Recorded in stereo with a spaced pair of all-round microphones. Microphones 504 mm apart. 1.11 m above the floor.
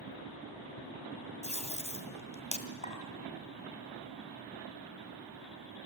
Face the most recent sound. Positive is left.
turn(degrees=80)